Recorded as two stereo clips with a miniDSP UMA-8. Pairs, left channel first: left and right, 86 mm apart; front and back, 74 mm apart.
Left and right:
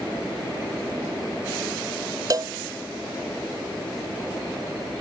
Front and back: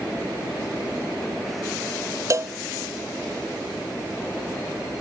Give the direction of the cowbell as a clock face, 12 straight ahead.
4 o'clock.